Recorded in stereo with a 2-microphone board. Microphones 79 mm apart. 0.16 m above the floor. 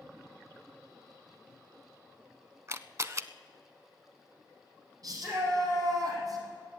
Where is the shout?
55° right (ahead or behind), 6.5 m.